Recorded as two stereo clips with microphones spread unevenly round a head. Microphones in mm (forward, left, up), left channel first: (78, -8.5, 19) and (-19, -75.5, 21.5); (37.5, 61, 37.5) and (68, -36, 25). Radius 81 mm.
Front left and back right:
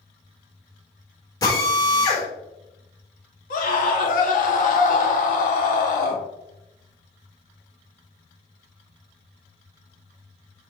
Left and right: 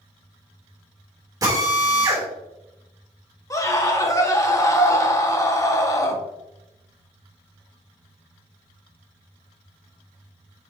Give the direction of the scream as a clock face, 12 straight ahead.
10 o'clock.